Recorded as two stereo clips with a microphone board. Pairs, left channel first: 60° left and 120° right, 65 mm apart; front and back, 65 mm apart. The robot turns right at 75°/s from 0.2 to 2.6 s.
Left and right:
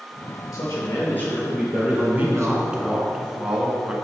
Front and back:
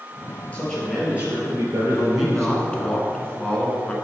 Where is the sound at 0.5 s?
65° left, 2.5 m; by 3.0 s 140° right, 2.5 m.